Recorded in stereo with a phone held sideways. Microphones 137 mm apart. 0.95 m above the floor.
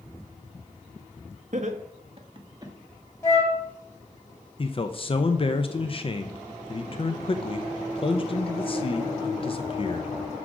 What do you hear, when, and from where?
1.5 s laughter: 55° right (ahead or behind), 1.2 m; by 2.7 s 25° right (ahead or behind), 1.5 m
3.2 s a flute: 25° left (ahead or behind), 1.3 m
4.6 s a man speaking: 40° left (ahead or behind), 0.5 m